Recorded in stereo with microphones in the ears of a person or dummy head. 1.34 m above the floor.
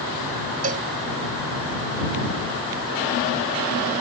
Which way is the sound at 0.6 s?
40° right (ahead or behind).